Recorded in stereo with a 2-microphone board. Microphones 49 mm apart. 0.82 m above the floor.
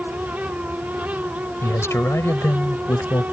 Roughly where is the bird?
I don't hear a bird.